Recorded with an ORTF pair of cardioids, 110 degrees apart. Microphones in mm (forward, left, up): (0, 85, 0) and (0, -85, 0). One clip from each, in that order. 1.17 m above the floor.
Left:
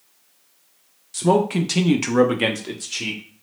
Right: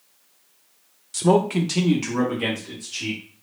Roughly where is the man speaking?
Ahead.